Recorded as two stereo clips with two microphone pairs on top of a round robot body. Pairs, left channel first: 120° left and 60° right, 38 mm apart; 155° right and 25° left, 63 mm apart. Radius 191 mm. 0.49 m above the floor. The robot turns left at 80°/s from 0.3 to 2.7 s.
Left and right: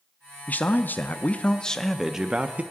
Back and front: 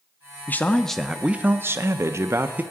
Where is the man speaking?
150° left, 0.8 m; by 2.6 s 20° right, 0.8 m.